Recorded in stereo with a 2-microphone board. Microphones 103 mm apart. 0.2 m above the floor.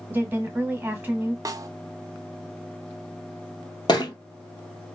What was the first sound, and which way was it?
A woman speaking, 20° right (ahead or behind).